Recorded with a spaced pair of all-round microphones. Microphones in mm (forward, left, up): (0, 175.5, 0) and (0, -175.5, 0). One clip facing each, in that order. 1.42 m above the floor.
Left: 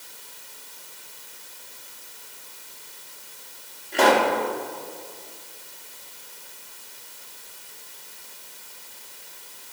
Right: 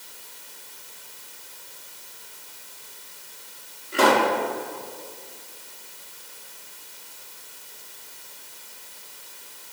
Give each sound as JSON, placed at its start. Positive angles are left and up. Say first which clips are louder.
{"t": 3.9, "sound": "a pop", "louder": "left 1 dB", "side_deg": -15, "distance_m": 2.0}